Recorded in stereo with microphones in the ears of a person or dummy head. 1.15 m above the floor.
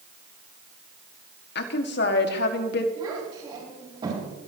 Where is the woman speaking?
60° left (ahead or behind), 1.8 m.